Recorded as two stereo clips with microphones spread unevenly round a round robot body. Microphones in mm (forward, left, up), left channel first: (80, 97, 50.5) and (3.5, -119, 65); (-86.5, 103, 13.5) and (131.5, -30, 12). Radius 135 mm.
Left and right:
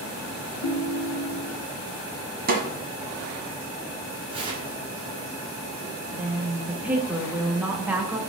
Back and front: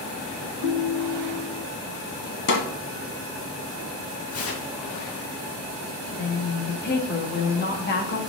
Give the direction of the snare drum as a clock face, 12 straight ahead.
5 o'clock.